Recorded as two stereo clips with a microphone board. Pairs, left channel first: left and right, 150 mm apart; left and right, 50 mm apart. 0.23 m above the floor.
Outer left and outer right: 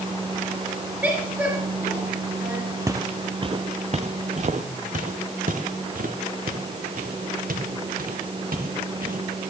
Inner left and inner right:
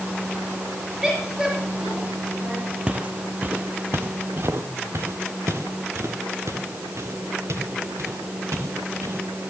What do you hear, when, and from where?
1.0 s a woman speaking: 10° right (ahead or behind), 3 m
2.9 s footsteps: 20° right (ahead or behind), 1.0 m; by 9.2 s 80° right, 4 m